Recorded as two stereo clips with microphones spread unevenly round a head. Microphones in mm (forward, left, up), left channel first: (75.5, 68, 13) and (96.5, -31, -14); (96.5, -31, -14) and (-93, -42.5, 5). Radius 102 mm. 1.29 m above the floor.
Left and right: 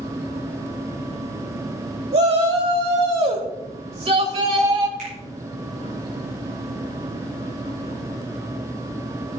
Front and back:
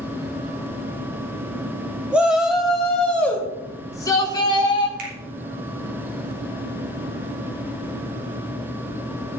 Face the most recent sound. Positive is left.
turn(degrees=-135)